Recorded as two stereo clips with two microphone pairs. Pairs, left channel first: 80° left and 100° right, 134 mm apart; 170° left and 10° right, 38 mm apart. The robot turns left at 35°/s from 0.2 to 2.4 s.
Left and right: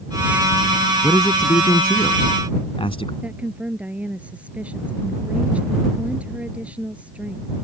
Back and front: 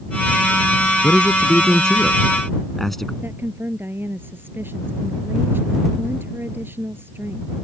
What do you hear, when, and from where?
1.0 s a man speaking: 135° left; by 3.1 s 85° left
3.2 s a woman speaking: 20° right